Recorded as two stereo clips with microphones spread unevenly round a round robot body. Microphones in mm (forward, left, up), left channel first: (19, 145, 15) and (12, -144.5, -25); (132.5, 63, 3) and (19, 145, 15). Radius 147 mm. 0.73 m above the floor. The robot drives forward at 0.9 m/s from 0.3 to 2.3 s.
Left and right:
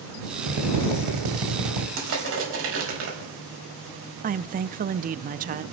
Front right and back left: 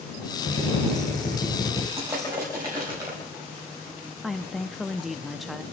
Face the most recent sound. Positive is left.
turn(degrees=-120)